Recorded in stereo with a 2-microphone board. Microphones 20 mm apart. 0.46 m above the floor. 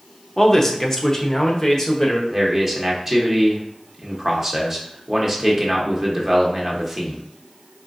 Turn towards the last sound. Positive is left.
turn(degrees=-15)  # may be behind; listen again after turning